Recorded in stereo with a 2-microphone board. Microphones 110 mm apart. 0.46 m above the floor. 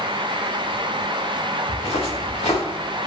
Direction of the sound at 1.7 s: 65° left (ahead or behind).